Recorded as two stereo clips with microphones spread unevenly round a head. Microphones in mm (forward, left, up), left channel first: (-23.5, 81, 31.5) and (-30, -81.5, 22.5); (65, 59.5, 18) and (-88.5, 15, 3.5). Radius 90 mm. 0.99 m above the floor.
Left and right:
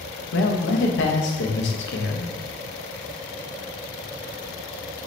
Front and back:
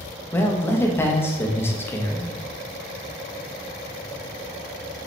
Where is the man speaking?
90° left, 0.8 m.